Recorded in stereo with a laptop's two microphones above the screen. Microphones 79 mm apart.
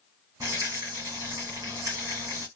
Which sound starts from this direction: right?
A rattle, at 0.4 s.